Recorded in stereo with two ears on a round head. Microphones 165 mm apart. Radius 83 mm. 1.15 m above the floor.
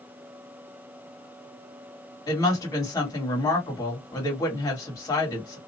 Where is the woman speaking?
20° left (ahead or behind), 1.6 m.